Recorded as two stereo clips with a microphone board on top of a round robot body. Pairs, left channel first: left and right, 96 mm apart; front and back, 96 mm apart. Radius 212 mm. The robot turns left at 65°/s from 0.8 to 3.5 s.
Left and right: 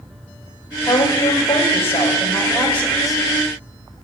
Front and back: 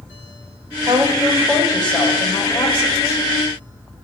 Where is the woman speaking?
145° left, 3 m; by 3.2 s 10° right, 3 m.